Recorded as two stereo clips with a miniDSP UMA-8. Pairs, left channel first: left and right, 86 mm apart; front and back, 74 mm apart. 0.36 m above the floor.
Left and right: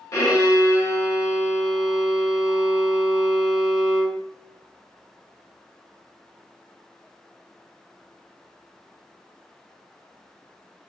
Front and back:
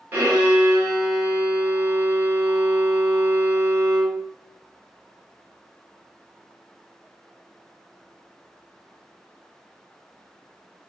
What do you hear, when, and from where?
0.1 s a violin: 125° left, 1.9 m